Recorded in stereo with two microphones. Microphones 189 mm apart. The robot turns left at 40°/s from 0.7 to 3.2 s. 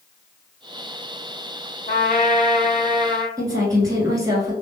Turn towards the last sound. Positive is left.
turn(degrees=-20)  # may be behind; listen again after turning